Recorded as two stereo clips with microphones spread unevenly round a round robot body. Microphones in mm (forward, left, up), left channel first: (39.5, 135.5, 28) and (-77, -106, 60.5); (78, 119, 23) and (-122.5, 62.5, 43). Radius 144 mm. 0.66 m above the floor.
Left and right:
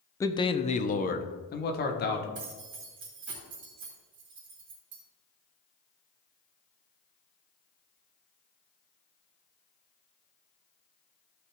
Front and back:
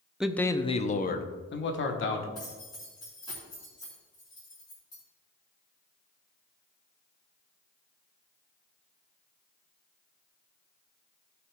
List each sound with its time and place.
0.2 s a man speaking: 105° left, 0.6 m; by 2.2 s 15° left, 1.4 m
2.4 s keys jangling: 60° right, 3 m